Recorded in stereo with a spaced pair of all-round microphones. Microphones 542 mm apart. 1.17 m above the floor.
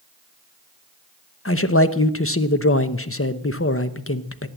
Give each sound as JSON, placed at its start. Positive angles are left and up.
{"t": 1.4, "sound": "a man speaking", "side_deg": 25, "distance_m": 0.8}